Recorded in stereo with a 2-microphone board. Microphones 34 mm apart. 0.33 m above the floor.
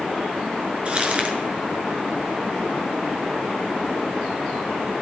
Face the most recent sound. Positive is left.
turn(degrees=-35)  # may be behind; listen again after turning